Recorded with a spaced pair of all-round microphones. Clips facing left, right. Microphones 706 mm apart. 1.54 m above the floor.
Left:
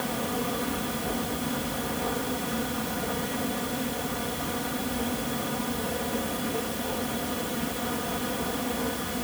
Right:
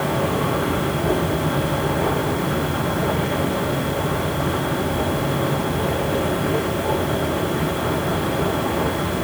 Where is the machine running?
80° right.